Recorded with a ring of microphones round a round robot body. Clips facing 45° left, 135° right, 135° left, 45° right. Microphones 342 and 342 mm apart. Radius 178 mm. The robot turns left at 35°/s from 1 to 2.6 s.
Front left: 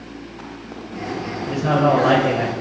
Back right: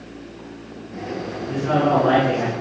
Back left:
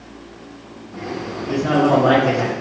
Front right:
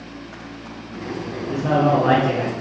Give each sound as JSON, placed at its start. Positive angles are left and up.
{"t": 1.5, "sound": "a man speaking", "azimuth_deg": 60, "distance_m": 3.5}